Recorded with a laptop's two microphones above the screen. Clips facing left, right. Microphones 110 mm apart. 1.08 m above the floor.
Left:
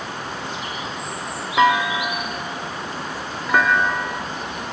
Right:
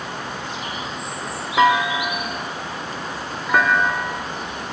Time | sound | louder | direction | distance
1.6 | a clunk | right 1 dB | centre (ahead or behind) | 0.9 m